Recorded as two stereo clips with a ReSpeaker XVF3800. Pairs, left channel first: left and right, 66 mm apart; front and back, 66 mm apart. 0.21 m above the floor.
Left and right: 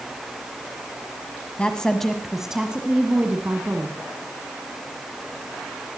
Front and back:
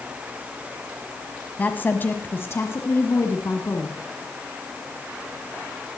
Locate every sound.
1.6 s a woman speaking: 35° left, 1.3 m; by 4.0 s 40° right, 2 m